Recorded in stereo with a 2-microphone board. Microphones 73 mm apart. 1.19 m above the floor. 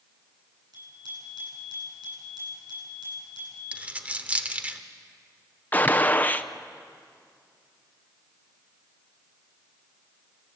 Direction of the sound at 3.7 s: 15° right (ahead or behind).